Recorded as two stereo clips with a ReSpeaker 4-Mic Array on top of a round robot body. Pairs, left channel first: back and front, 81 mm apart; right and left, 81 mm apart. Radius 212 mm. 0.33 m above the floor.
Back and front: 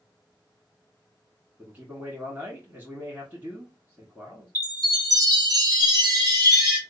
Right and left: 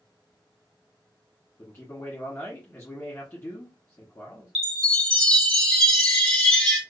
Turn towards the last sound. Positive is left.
turn(degrees=-15)